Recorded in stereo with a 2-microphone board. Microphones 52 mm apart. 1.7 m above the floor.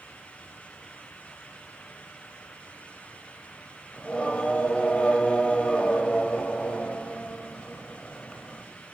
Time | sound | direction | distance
3.9 | singing | 20° left (ahead or behind) | 0.6 m